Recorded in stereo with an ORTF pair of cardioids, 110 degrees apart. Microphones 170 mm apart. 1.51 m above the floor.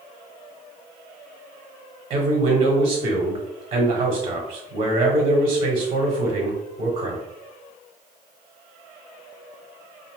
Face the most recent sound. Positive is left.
turn(degrees=-40)